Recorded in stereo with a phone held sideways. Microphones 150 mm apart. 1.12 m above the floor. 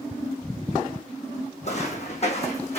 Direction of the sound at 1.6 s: 50° left (ahead or behind).